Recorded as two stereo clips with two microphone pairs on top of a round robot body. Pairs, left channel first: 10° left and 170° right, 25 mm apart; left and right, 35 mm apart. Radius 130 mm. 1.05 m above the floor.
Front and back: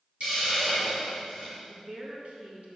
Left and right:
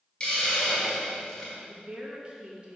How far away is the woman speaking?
About 1.8 m.